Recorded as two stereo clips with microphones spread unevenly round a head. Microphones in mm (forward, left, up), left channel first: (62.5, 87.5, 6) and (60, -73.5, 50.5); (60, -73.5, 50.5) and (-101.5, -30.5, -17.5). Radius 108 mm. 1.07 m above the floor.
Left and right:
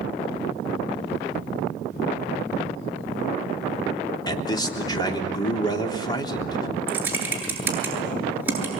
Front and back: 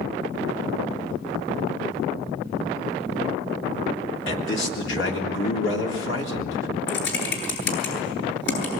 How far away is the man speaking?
About 3.5 m.